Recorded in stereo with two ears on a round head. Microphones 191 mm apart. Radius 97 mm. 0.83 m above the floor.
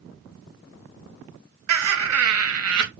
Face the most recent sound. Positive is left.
turn(degrees=-80)